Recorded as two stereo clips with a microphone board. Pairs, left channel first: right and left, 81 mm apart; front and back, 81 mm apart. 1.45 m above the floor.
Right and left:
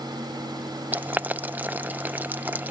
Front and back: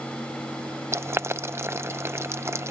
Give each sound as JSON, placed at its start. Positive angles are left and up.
{"t": 0.9, "sound": "boiling", "azimuth_deg": 145}